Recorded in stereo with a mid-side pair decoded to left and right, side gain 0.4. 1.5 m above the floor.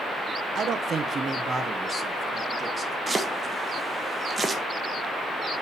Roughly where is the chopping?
Ahead right.